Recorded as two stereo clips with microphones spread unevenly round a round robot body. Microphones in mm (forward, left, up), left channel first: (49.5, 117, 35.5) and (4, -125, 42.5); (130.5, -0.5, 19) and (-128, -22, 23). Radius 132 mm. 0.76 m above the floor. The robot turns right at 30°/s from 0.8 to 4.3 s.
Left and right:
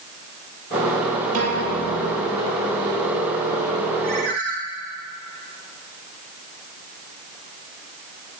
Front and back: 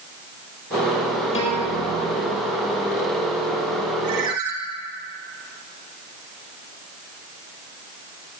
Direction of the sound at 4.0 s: 160° right.